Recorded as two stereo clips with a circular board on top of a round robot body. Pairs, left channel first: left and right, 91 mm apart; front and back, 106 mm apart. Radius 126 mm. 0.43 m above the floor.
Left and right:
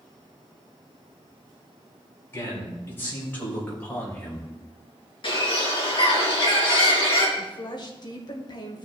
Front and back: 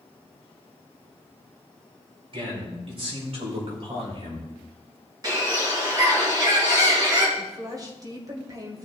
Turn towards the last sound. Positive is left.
turn(degrees=125)